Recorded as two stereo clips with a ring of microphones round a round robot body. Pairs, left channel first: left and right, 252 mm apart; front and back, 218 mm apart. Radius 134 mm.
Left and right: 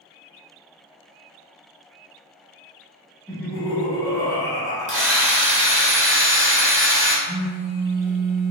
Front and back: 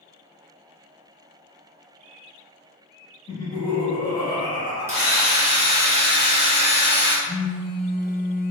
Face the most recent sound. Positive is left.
turn(degrees=-80)